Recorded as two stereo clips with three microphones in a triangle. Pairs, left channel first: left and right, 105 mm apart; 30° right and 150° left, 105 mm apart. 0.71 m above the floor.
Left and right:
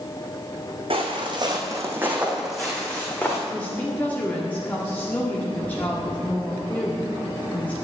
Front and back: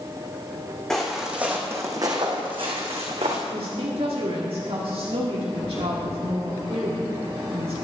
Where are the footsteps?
115° right, 2.5 m; by 3.4 s 160° left, 3 m.